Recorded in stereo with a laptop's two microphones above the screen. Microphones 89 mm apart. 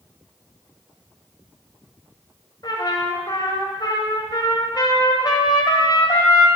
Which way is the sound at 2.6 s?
50° left (ahead or behind).